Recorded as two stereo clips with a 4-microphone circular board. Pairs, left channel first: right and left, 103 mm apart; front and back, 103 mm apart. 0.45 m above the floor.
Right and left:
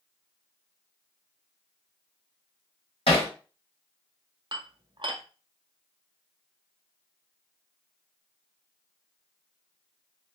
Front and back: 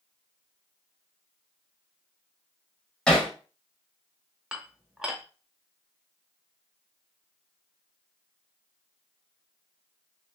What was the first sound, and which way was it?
Hammering, 80° right.